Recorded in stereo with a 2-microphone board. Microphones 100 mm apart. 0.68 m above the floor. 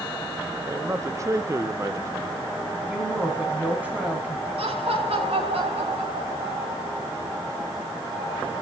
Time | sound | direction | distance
0.7 | a man speaking | 30° right (ahead or behind) | 0.6 m
2.9 | a woman speaking | 15° right (ahead or behind) | 4.5 m
4.6 | laughter | 80° right | 4.5 m